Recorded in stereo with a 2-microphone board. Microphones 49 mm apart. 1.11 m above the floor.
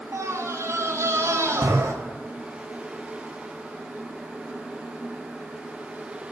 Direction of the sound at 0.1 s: 75° right (ahead or behind).